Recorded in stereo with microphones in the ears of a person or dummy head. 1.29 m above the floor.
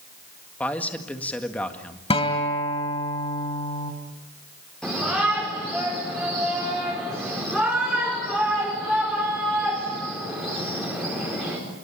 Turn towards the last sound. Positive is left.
turn(degrees=0)  # may be behind; listen again after turning